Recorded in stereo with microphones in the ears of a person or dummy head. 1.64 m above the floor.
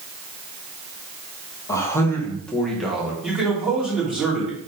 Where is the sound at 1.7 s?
20° left (ahead or behind), 1.7 m; by 3.1 s 5° right (ahead or behind), 2.0 m.